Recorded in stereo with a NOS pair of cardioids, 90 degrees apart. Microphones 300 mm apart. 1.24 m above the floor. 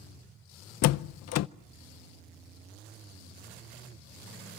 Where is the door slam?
60° left, 0.6 m.